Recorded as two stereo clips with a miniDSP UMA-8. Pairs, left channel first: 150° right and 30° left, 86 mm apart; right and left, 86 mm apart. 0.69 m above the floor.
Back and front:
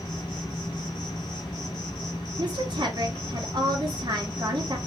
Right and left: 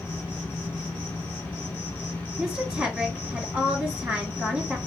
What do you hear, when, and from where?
0.0 s an insect: 160° right, 2 m
2.4 s a woman speaking: 10° left, 1.7 m